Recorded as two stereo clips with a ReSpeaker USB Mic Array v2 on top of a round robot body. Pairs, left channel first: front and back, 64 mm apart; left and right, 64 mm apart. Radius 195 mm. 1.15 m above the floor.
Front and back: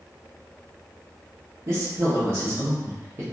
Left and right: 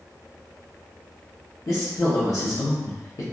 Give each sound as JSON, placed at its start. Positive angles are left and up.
{"t": 1.7, "sound": "a woman speaking", "azimuth_deg": 130, "distance_m": 0.7}